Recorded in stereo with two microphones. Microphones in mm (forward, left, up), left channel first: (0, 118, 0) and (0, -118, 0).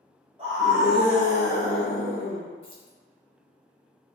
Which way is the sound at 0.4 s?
25° right (ahead or behind).